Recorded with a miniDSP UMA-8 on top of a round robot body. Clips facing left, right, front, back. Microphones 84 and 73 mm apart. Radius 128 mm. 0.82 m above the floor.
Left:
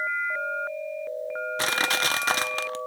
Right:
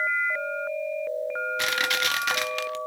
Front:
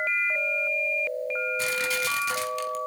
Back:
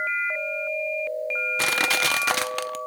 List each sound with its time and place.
1.6 s crushing: 145° left, 0.6 m